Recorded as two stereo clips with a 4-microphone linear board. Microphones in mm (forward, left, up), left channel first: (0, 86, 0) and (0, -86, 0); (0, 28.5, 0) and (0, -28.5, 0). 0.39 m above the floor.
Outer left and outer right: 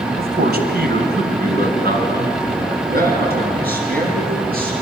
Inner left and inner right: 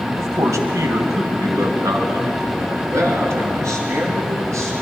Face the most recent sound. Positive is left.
turn(degrees=-55)  # may be behind; listen again after turning